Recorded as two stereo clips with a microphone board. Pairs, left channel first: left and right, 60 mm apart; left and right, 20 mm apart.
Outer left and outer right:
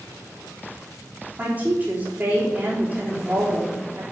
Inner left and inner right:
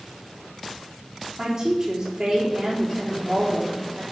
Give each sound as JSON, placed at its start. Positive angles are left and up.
{"t": 1.4, "sound": "a woman speaking", "side_deg": -25, "distance_m": 3.5}